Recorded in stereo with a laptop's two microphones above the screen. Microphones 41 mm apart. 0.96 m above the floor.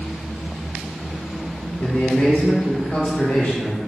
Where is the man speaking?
40° left (ahead or behind), 1.1 m.